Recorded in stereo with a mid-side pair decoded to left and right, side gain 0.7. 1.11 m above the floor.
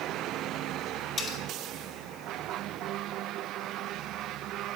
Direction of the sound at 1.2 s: 30° left.